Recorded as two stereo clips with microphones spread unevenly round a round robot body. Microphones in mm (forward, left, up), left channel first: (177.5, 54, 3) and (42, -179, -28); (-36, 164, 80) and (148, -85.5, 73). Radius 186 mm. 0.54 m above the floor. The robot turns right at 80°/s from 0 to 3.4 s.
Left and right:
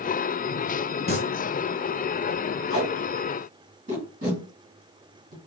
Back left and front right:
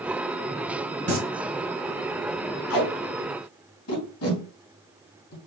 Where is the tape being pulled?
120° left, 2 m; by 5.4 s 175° left, 2 m.